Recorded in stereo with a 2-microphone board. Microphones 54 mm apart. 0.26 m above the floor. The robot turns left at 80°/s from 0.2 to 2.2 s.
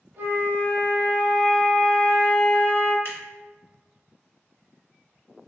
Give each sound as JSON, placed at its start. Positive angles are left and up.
{"t": 0.2, "sound": "a flute", "azimuth_deg": -80, "distance_m": 1.3}
{"t": 3.0, "sound": "scissors", "side_deg": 50, "distance_m": 1.8}